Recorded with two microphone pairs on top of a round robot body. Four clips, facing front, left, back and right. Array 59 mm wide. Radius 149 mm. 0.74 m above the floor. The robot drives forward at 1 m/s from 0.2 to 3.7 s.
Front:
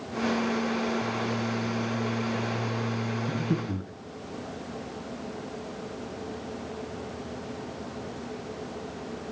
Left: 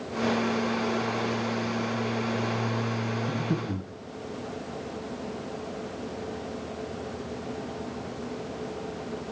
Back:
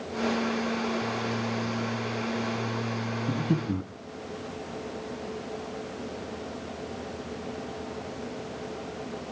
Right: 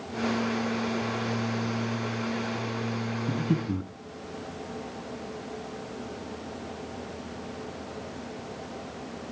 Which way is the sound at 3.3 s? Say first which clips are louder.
Right 1 dB, back 5 dB; 160° right.